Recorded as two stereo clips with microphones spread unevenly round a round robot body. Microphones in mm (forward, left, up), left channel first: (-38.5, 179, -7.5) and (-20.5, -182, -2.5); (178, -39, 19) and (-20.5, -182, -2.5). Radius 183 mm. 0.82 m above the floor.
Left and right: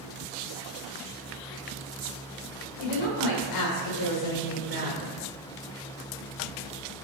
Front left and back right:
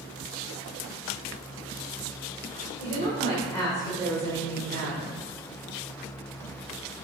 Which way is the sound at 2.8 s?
105° left.